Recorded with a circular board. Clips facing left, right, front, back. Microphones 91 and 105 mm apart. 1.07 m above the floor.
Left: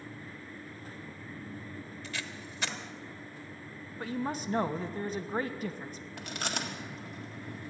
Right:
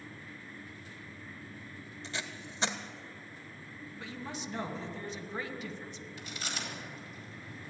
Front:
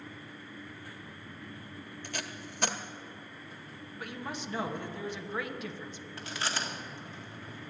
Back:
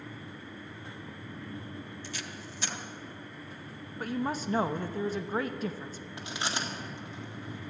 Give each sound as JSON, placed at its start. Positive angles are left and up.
{"t": 2.0, "sound": "tape being pulled", "azimuth_deg": -30, "distance_m": 1.0}
{"t": 4.0, "sound": "a woman speaking", "azimuth_deg": 130, "distance_m": 0.9}
{"t": 6.2, "sound": "chewing", "azimuth_deg": 110, "distance_m": 1.7}